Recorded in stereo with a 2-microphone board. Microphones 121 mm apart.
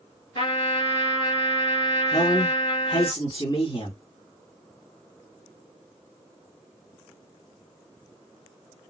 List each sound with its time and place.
0.3 s a trumpet: 55° left (ahead or behind), 2.5 m
2.1 s a man speaking: 45° left (ahead or behind), 2.5 m